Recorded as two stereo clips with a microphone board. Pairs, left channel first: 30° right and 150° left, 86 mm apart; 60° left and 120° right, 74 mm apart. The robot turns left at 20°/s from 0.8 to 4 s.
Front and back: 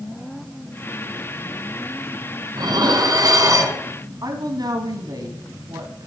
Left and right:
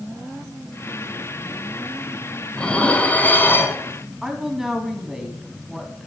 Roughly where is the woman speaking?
Behind left.